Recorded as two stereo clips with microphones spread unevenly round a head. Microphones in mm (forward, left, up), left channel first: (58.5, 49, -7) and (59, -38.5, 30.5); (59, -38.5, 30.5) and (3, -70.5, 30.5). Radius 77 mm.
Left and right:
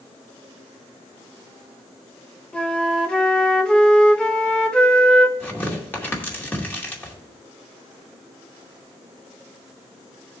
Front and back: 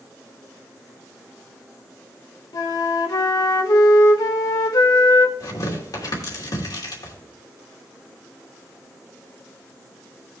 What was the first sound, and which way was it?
A flute, 10° left.